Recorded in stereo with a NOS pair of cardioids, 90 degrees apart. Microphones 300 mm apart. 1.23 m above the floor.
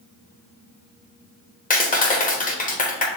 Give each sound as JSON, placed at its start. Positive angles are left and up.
{"t": 1.7, "sound": "a clap", "azimuth_deg": 30, "distance_m": 1.1}